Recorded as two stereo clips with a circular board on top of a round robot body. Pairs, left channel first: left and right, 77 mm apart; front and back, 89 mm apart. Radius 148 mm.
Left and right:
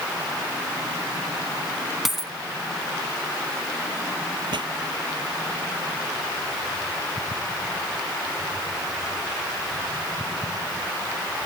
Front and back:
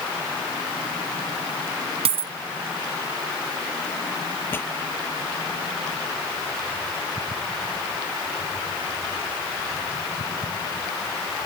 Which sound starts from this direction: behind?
A dropped coin, at 2.0 s.